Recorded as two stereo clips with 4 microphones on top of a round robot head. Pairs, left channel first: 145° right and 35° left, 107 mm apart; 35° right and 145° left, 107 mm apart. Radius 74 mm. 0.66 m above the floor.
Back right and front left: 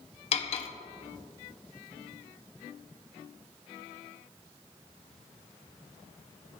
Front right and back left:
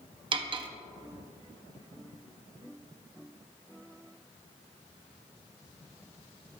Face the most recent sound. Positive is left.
turn(degrees=-175)